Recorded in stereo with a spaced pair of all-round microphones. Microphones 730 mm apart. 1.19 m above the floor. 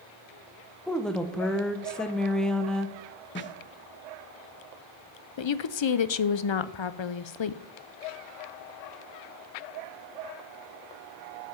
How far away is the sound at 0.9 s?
About 0.9 m.